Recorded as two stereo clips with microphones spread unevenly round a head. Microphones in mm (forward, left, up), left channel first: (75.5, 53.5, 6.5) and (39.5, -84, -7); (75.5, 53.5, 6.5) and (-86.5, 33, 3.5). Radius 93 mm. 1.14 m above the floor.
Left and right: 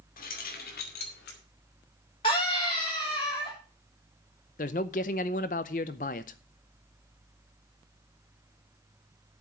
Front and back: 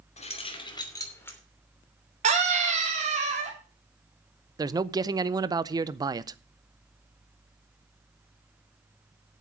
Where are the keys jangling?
55° left, 2.5 m; by 1.4 s 85° left, 3 m.